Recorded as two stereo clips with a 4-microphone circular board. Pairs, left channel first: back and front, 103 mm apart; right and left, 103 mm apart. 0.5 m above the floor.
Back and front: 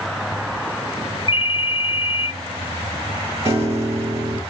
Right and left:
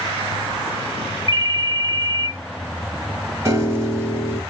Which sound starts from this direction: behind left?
A ringtone, at 1.3 s.